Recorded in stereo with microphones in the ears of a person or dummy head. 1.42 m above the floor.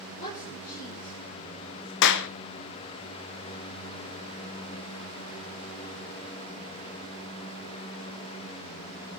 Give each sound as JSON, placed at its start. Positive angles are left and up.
{"t": 0.2, "sound": "a woman speaking", "side_deg": 45, "distance_m": 5.5}
{"t": 2.0, "sound": "a clap", "side_deg": 65, "distance_m": 0.8}